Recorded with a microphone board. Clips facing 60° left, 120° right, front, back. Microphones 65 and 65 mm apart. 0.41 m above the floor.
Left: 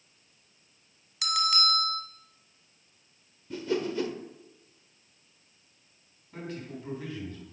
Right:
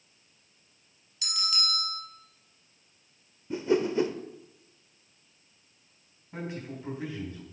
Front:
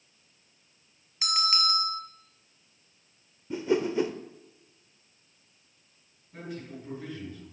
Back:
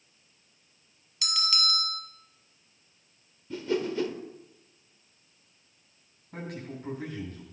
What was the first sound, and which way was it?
A bell, 55° left.